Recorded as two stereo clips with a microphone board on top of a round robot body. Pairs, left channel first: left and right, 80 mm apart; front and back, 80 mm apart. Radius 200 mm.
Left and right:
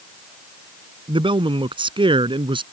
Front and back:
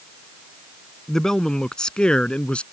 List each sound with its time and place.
1.1 s a man speaking: 85° right; by 2.6 s 75° right